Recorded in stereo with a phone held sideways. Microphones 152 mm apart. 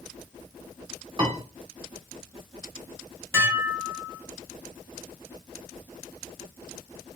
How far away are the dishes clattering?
About 1.0 m.